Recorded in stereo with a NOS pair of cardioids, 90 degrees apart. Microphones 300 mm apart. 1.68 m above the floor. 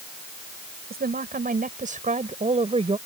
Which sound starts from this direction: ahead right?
A woman speaking, at 0.9 s.